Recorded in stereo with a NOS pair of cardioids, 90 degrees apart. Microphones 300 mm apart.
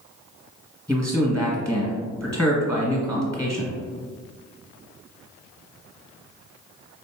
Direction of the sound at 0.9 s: 5° left.